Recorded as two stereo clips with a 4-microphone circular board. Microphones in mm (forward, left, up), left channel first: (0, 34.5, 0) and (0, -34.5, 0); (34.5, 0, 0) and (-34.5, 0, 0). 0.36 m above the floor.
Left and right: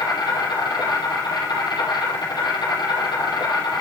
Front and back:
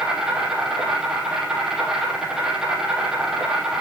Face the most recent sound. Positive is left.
turn(degrees=95)